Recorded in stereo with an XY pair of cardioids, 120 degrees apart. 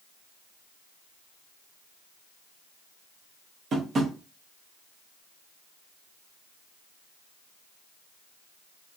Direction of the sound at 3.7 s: 45° right.